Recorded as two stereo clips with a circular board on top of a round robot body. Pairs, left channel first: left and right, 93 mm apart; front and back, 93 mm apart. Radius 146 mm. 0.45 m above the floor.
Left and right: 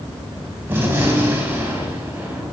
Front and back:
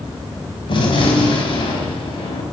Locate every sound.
0.7 s a gunshot: 20° right, 3.5 m